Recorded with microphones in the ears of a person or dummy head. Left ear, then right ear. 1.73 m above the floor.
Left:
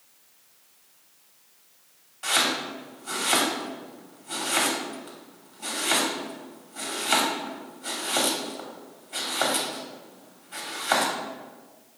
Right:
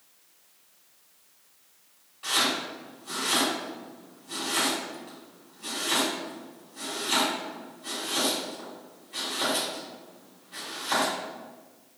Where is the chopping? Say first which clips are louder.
Left 2 dB; 25° left (ahead or behind), 1.1 m.